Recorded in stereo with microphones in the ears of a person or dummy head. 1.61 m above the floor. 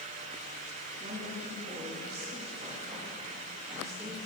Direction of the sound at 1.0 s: 45° right (ahead or behind).